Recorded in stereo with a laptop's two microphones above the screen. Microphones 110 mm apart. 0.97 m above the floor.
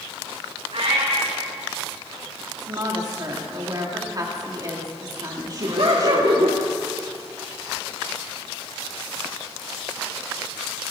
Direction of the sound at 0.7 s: 80° right.